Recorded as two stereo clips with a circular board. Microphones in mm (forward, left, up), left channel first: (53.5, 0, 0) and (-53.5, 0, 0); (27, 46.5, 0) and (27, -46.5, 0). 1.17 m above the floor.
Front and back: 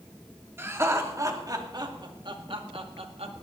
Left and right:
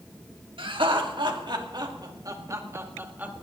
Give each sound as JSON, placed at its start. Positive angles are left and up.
{"t": 0.6, "sound": "laughter", "azimuth_deg": -110, "distance_m": 2.5}